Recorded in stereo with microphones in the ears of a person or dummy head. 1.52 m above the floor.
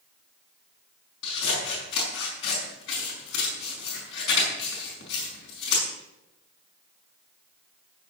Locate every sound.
1.2 s scissors: 80° left, 5 m